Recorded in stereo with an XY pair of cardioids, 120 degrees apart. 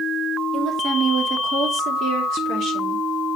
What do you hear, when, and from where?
0.5 s a woman speaking: 40° right, 3 m; by 3.0 s 70° right, 2.5 m